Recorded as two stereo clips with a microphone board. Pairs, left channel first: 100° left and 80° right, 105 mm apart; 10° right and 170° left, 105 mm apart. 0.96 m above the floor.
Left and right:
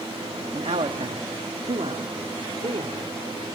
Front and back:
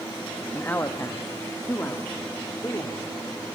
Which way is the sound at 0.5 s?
80° right.